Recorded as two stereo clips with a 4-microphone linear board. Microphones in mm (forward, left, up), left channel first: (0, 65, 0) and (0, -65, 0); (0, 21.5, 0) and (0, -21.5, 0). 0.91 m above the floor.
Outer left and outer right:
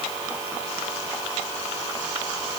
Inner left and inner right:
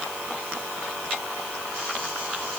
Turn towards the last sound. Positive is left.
No sound to turn to.